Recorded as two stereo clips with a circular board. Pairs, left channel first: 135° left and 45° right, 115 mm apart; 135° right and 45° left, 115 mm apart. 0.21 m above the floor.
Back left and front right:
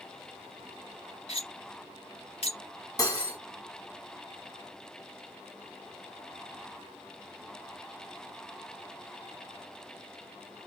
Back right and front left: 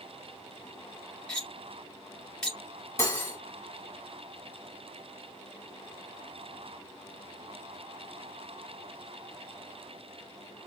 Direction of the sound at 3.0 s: 175° left.